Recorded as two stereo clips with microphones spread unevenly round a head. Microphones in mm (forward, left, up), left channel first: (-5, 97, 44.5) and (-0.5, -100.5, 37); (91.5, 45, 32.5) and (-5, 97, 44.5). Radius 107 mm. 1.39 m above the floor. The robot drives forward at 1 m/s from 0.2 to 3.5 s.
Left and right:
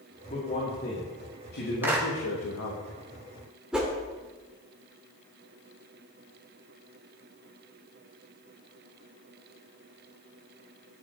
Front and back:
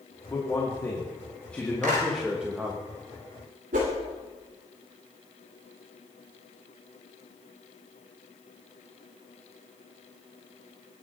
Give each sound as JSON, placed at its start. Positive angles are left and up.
{"t": 0.3, "sound": "a man speaking", "azimuth_deg": 35, "distance_m": 3.5}
{"t": 1.8, "sound": "a clap", "azimuth_deg": -170, "distance_m": 4.0}
{"t": 3.7, "sound": "a whoosh", "azimuth_deg": -175, "distance_m": 3.5}